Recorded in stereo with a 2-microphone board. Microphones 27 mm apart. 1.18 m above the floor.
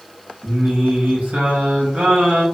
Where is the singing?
75° right (ahead or behind), 1.1 m.